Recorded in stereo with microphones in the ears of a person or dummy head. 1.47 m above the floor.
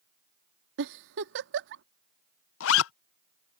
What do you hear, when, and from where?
0.8 s a giggle: 70° right (ahead or behind)
2.6 s a zipper: 85° left